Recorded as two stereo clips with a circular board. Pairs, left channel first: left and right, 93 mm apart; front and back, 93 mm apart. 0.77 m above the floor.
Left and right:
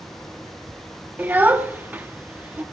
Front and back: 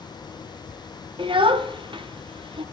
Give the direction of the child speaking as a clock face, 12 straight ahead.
5 o'clock.